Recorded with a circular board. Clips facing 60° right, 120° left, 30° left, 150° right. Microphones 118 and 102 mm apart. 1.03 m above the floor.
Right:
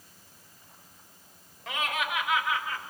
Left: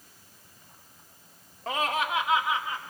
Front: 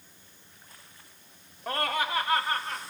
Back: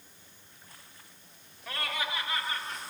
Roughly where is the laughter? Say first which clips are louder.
Left 4 dB, front 6 dB; left.